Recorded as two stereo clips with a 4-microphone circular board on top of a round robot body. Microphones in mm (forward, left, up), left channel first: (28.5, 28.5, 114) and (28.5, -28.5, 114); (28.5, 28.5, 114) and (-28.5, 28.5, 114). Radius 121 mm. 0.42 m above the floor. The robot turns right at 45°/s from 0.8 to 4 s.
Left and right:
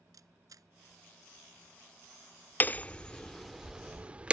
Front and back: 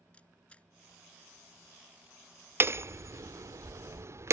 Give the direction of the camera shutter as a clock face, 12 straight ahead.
2 o'clock.